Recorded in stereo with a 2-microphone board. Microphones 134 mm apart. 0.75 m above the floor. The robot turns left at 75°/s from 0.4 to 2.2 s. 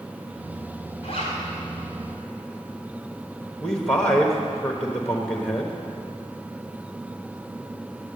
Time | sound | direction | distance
1.0 | a zipper | 60° left (ahead or behind) | 3.5 m
3.6 | a man speaking | 5° left (ahead or behind) | 1.0 m